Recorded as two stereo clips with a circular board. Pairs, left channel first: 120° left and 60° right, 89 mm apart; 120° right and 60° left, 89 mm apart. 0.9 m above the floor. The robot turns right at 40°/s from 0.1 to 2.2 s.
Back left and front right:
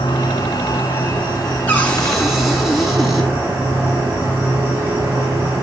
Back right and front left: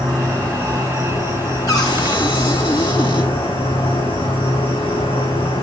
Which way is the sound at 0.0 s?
150° left.